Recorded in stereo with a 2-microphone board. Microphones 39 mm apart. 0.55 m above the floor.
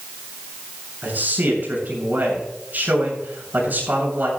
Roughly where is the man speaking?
Right.